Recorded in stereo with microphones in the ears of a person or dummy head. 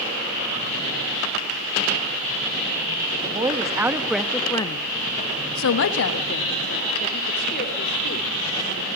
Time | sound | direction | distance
3.2 | a woman speaking | 30° right (ahead or behind) | 2 m